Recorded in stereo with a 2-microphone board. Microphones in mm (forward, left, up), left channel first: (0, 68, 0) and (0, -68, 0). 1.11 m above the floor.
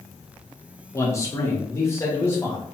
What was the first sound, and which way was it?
A man speaking, 20° left (ahead or behind).